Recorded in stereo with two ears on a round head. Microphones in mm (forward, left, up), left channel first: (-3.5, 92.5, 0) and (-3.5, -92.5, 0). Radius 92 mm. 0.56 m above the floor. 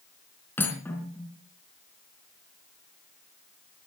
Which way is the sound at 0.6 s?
10° left (ahead or behind).